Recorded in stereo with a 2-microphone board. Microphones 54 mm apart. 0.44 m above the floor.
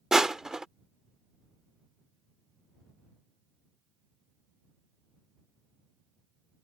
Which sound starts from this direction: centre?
Crushing, at 0.1 s.